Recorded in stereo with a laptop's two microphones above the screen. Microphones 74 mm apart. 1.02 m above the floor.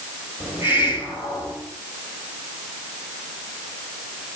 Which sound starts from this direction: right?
A hiss, at 0.4 s.